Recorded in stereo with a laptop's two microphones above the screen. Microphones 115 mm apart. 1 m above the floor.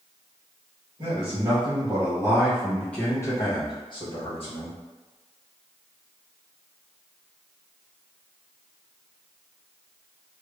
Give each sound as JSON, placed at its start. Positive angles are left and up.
{"t": 1.0, "sound": "a man speaking", "side_deg": -55, "distance_m": 1.3}